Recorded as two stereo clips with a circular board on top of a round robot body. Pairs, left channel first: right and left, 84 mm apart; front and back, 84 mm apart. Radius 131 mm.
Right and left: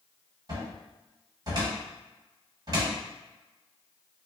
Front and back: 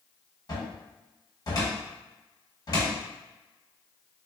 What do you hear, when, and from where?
0.5 s a cupboard door: 45° left, 1.3 m